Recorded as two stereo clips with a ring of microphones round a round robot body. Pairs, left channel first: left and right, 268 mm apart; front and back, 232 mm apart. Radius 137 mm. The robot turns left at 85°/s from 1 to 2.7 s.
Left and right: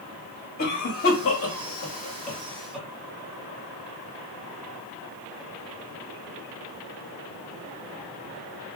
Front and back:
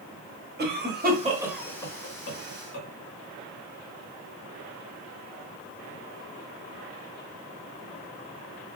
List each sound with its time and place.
0.6 s a cough: 140° left, 1.5 m; by 2.9 s 5° right, 1.5 m